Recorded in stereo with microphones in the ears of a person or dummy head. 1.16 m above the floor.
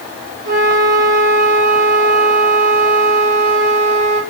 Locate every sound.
0.5 s a flute: 25° right (ahead or behind), 0.8 m